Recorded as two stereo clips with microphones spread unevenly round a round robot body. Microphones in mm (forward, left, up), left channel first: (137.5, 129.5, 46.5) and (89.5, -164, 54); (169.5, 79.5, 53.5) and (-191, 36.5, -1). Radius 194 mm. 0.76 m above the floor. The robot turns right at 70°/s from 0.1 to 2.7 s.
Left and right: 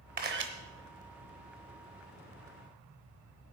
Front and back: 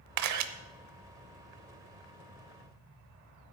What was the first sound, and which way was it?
A camera shutter, 150° right.